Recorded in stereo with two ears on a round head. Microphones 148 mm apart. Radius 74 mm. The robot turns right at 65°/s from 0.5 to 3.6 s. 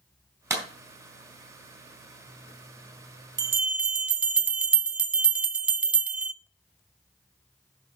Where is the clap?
15° right (ahead or behind), 3 m; by 0.6 s 25° right (ahead or behind), 3 m.